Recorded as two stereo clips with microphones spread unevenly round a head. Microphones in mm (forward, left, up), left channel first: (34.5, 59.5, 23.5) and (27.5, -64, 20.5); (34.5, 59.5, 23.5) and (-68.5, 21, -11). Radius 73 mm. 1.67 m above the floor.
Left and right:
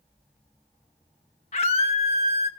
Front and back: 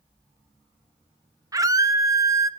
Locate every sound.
1.5 s a scream: 135° left, 1.7 m